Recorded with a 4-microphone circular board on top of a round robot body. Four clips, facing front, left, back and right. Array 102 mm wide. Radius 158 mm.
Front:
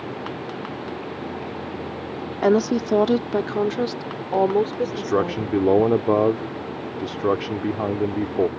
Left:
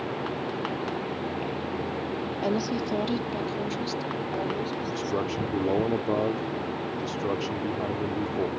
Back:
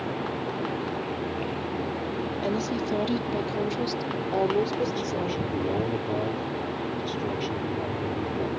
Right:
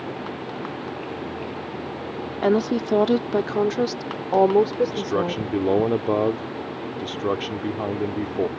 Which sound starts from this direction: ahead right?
A woman speaking, at 2.4 s.